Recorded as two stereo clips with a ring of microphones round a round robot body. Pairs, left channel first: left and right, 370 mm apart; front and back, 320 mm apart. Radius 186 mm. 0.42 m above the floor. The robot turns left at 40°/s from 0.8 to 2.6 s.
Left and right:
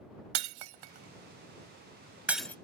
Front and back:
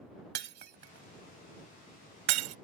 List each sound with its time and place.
0.3 s breaking glass: 115° right; by 2.5 s 175° left